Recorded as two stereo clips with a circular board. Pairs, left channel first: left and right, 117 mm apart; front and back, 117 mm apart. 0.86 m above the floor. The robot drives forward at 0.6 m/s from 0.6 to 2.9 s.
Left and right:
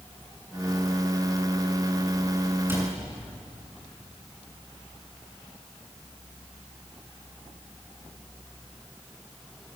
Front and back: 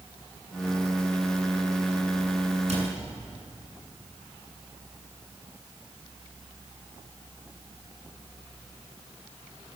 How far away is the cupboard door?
About 8.5 m.